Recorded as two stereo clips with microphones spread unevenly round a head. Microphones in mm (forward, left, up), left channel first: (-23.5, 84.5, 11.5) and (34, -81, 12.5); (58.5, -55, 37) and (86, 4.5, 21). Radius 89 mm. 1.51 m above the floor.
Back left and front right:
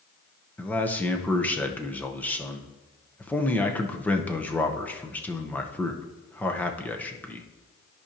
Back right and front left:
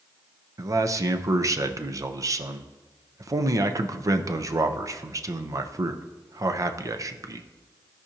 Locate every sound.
0.6 s a man speaking: 25° left, 0.8 m